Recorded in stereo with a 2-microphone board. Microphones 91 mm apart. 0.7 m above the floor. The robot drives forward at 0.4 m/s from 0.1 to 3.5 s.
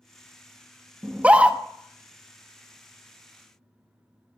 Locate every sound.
1.0 s a scream: 15° right (ahead or behind), 0.5 m